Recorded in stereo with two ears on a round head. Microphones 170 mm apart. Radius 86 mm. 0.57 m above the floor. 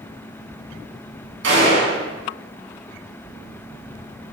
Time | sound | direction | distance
1.4 | a gunshot | 70° right (ahead or behind) | 4 m